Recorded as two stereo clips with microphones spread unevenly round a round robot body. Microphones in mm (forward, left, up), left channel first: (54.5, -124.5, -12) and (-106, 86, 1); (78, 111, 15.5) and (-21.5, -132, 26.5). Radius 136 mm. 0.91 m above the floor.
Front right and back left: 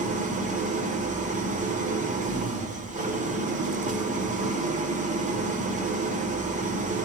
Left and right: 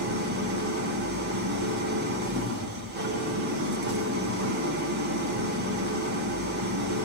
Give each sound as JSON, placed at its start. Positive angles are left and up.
{"t": 0.0, "sound": "an engine running", "azimuth_deg": -170, "distance_m": 2.0}